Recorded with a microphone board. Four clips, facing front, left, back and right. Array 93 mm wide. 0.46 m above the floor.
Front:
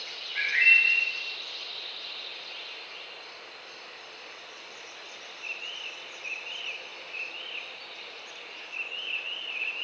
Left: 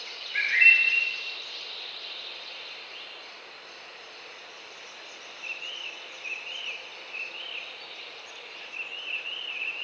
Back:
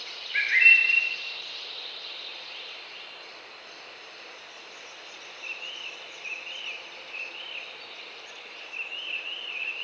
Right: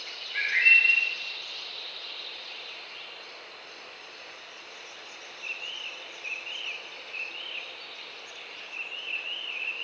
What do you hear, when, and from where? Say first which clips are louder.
0.3 s a bird: left 1 dB, back 3 dB; 165° left, 2 m